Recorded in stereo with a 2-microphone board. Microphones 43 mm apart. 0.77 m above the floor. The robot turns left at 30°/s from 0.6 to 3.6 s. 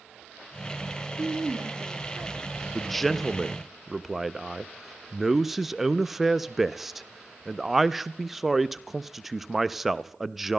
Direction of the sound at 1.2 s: 105° right.